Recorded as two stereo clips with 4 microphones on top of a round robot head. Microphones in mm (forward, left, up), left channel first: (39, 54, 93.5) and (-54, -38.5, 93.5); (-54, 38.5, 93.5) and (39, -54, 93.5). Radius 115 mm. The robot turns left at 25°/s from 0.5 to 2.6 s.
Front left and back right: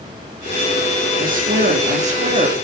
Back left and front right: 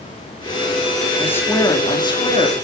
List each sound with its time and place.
1.2 s a woman speaking: 145° right, 3.5 m; by 2.5 s straight behind, 3.5 m